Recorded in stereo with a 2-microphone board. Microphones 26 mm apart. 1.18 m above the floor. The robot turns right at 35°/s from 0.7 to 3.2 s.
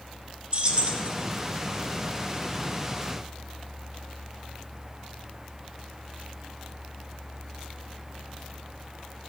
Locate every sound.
0.5 s keys jangling: 40° right (ahead or behind), 1.0 m; by 1.1 s 50° right (ahead or behind), 1.0 m